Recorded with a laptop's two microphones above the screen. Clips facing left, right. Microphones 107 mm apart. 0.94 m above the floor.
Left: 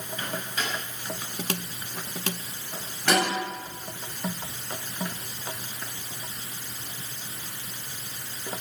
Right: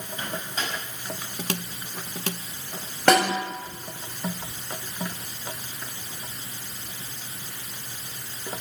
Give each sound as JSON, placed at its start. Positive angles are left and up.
{"t": 0.2, "sound": "a microwave", "side_deg": -30, "distance_m": 6.0}
{"t": 3.1, "sound": "a snare drum", "side_deg": -65, "distance_m": 7.0}